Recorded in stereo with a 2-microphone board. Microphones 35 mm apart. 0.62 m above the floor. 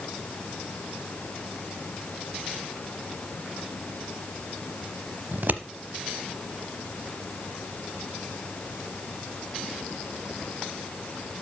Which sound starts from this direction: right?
Scissors, at 5.3 s.